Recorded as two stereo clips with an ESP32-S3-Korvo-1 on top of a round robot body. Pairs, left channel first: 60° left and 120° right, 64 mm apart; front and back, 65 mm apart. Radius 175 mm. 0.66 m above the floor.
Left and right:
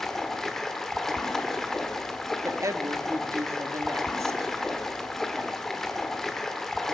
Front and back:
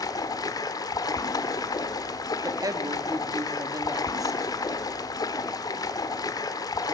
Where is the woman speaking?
155° right, 1.7 m.